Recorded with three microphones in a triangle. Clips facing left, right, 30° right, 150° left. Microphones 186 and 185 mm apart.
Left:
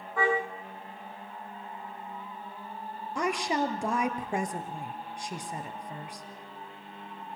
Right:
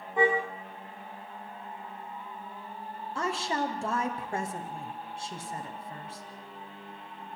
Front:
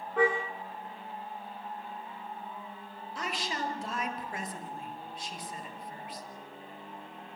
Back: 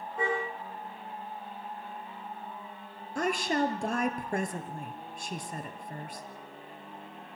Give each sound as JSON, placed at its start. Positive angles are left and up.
{"t": 0.2, "sound": "a car horn", "azimuth_deg": -20, "distance_m": 8.0}
{"t": 3.1, "sound": "a woman speaking", "azimuth_deg": 160, "distance_m": 2.0}